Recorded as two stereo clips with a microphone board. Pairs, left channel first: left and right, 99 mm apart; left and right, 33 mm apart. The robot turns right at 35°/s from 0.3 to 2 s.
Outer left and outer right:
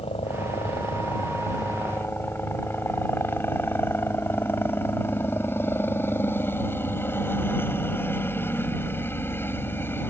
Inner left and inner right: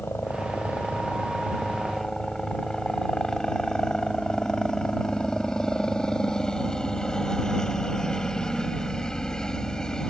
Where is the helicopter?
100° left; by 10.1 s 160° left.